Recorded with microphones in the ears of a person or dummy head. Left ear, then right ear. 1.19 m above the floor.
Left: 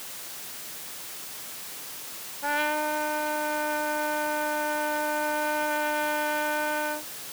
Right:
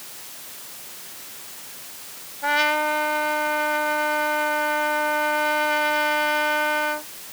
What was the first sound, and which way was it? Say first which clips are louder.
A trumpet: right 6 dB; 85° right.